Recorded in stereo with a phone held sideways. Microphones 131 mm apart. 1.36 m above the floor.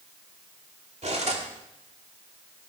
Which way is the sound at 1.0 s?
55° right (ahead or behind).